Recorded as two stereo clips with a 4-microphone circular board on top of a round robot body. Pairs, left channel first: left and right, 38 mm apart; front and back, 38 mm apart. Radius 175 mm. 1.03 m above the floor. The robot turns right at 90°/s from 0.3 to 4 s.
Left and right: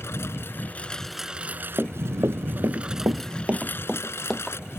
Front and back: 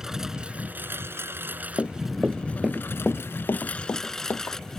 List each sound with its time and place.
0.0 s a lawn mower: 105° left; by 4.8 s 80° left
1.8 s running footsteps: 40° right; by 4.6 s 10° left